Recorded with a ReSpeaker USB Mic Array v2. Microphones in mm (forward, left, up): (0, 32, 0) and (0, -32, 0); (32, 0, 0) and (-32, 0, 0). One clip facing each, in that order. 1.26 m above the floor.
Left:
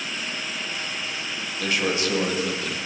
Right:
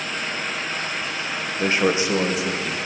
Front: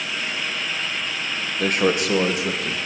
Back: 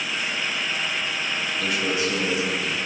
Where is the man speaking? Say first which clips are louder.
Right 4 dB, front 6 dB; 40° right, 1.0 m; by 2.8 s 5° right, 2.0 m.